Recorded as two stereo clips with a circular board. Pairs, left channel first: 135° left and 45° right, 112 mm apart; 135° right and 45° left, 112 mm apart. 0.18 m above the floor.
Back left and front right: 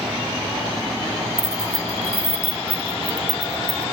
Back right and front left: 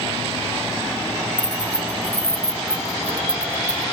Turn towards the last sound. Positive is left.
turn(degrees=-60)